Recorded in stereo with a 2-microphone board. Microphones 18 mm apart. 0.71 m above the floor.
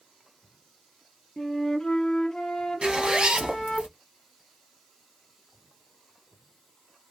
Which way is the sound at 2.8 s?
70° right (ahead or behind).